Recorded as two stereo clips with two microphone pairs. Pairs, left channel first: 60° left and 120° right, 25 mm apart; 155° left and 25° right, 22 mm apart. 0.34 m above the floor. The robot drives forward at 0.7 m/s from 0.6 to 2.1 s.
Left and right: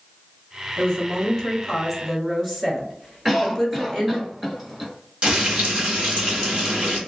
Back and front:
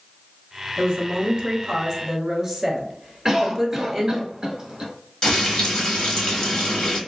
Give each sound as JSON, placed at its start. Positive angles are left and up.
{"t": 0.8, "sound": "a woman speaking", "azimuth_deg": -25, "distance_m": 1.8}
{"t": 3.2, "sound": "a cough", "azimuth_deg": -55, "distance_m": 0.9}
{"t": 5.2, "sound": "frying", "azimuth_deg": -155, "distance_m": 1.1}